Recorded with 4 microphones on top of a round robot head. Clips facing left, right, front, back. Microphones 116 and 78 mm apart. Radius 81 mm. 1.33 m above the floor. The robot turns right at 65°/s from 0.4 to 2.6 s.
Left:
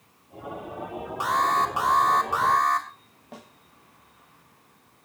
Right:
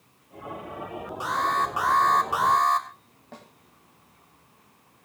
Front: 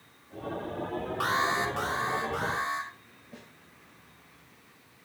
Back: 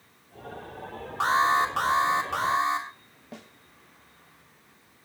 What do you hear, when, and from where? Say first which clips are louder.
1.2 s an alarm: left 3 dB, back 6 dB; 115° left, 3 m; by 2.9 s 155° right, 3 m
3.3 s a snare drum: left 1 dB, back 5 dB; 170° left, 3.5 m